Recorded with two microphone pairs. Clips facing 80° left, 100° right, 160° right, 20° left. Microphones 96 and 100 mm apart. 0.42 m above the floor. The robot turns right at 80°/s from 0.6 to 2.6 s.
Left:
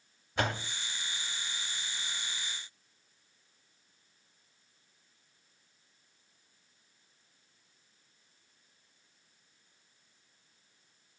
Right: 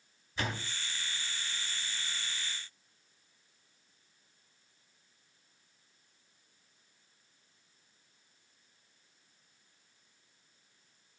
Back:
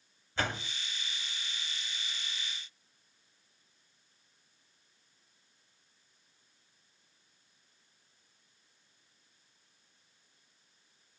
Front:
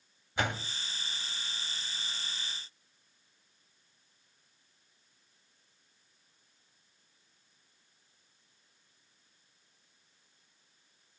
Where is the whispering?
No whispering in this recording.